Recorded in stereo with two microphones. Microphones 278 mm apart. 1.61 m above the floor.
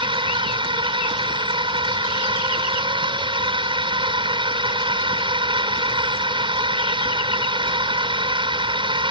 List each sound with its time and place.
0.0 s a drone: 15° right (ahead or behind)